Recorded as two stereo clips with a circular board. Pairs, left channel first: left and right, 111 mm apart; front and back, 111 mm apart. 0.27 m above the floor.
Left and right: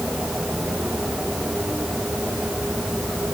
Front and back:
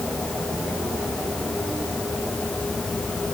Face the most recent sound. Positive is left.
No sound to turn to.